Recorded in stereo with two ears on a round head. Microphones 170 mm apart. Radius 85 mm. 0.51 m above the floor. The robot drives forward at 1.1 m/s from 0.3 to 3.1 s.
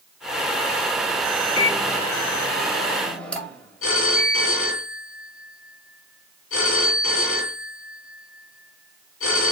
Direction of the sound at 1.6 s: 15° left (ahead or behind).